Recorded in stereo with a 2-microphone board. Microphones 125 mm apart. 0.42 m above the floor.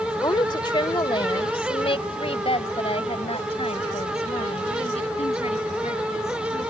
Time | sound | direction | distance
0.2 | a woman speaking | 35° left (ahead or behind) | ?